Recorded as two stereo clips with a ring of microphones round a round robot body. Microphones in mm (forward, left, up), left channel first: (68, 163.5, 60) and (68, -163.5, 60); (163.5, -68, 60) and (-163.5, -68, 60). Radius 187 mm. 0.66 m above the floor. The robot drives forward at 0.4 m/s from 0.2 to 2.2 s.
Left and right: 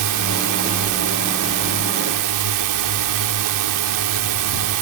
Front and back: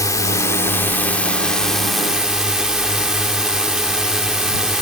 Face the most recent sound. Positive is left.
turn(degrees=-90)